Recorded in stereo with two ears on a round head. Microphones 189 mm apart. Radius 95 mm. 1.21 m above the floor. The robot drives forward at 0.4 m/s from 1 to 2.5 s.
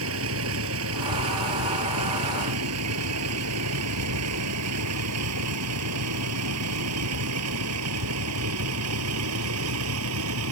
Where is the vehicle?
70° right (ahead or behind); by 10.5 s 85° right.